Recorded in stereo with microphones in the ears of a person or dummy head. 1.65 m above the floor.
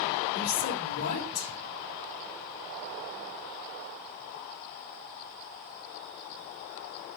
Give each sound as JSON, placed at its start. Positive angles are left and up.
{"t": 0.3, "sound": "a woman speaking", "side_deg": 50, "distance_m": 3.5}